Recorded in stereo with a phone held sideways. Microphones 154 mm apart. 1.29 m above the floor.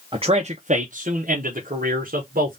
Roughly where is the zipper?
I don't hear a zipper.